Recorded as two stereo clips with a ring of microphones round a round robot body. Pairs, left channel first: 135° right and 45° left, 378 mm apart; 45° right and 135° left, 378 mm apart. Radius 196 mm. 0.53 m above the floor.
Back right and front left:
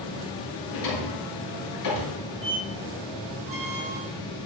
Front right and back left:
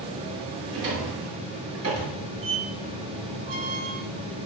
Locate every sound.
0.7 s a drawer: 170° right, 6.5 m
2.4 s a squeak: 120° left, 2.5 m